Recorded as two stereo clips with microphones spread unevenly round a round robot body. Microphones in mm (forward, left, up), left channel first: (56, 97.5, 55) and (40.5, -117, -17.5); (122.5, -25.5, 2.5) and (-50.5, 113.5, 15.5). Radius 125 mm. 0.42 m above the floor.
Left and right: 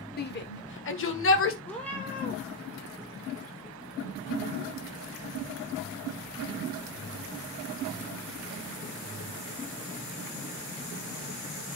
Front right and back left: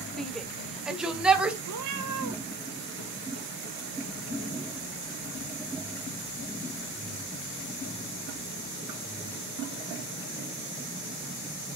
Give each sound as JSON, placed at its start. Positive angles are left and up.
{"t": 0.2, "sound": "a shout", "azimuth_deg": 45, "distance_m": 1.3}
{"t": 1.7, "sound": "a cat meowing", "azimuth_deg": 165, "distance_m": 1.5}